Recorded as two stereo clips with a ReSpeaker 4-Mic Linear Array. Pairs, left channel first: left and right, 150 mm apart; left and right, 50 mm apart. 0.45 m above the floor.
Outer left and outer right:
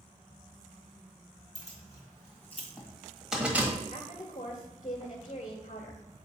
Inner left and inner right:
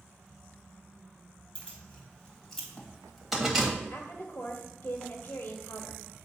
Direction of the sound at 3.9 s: 50° left (ahead or behind).